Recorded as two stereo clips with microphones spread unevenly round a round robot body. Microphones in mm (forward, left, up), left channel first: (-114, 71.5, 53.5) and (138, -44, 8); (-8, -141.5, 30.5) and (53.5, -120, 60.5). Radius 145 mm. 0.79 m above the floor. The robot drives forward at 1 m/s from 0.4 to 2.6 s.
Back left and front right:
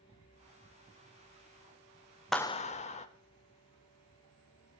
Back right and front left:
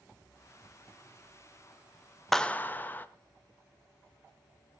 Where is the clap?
105° right, 0.6 m; by 3.1 s 135° right, 0.7 m.